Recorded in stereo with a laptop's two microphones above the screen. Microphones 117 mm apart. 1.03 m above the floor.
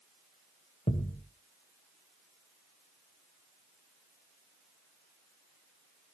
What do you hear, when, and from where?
0.9 s a thud: 70° left (ahead or behind), 2.5 m